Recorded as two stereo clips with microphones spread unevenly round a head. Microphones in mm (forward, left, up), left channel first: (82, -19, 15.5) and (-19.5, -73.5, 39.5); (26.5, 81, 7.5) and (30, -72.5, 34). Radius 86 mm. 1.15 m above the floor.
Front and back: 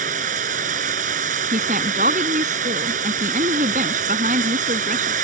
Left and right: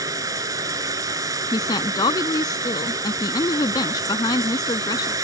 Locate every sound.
0.0 s running water: 160° right
1.5 s a woman speaking: 160° left